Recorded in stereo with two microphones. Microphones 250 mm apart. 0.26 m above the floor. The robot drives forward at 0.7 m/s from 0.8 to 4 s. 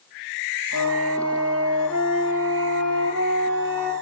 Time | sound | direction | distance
0.7 | a flute | 80° right | 2 m